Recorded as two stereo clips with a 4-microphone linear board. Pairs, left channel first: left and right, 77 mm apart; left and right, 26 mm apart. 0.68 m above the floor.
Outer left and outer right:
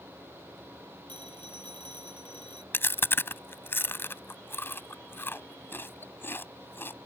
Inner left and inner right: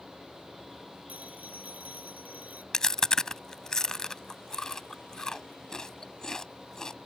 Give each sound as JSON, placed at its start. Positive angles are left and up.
{"t": 1.1, "sound": "a phone ringing", "side_deg": -85}
{"t": 2.7, "sound": "chewing", "side_deg": 30}